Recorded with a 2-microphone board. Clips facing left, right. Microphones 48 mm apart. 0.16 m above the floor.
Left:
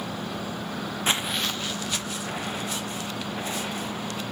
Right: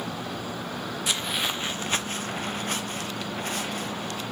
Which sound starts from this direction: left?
Footsteps, at 1.1 s.